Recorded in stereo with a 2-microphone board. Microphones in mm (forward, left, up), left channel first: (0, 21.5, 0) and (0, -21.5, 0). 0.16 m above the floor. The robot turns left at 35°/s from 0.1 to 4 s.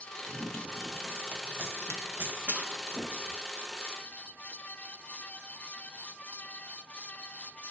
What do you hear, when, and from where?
0.2 s running footsteps: 30° left (ahead or behind), 1.1 m; by 3.4 s 20° left (ahead or behind), 1.0 m